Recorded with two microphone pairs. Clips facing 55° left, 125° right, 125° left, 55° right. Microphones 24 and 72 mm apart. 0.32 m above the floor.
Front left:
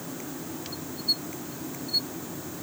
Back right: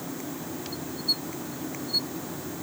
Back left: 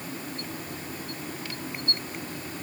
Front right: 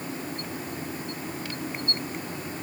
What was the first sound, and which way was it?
Only background noise.